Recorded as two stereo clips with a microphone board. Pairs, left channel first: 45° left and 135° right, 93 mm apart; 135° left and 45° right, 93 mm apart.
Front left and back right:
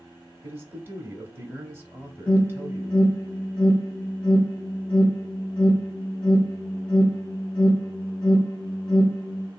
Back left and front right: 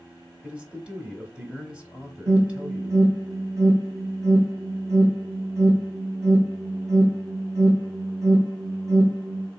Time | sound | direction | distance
0.4 | a man speaking | 110° right | 1.0 m
2.3 | an alarm | 25° right | 1.7 m